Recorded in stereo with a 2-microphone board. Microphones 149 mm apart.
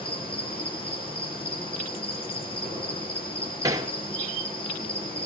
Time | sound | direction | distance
0.0 | an insect | 35° left (ahead or behind) | 10 m
3.6 | hammering | 25° right (ahead or behind) | 2.0 m